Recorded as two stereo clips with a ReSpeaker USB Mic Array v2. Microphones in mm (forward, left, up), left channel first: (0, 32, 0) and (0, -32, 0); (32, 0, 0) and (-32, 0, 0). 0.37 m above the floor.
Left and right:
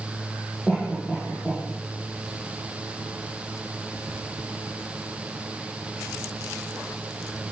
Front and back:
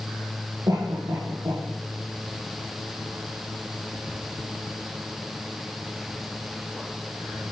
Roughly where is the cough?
Behind.